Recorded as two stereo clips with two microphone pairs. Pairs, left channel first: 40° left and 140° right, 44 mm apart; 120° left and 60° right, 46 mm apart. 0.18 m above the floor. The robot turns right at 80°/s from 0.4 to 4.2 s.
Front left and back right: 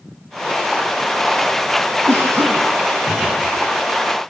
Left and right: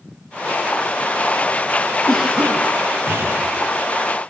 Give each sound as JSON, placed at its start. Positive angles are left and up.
{"t": 2.1, "sound": "a cough", "azimuth_deg": -155, "distance_m": 6.0}